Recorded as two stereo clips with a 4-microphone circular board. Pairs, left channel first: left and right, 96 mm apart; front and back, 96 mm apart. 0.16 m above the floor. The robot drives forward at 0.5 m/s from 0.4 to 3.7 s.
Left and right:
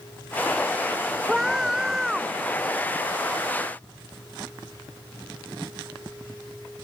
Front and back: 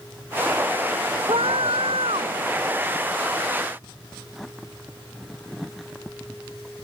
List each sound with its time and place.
1.3 s a scream: 175° right